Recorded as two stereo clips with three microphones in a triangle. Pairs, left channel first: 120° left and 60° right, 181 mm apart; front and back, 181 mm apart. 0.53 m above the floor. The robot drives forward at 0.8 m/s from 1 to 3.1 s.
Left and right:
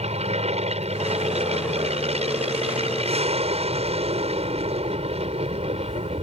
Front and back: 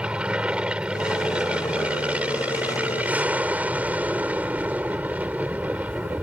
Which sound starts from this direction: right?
An aircraft, at 0.0 s.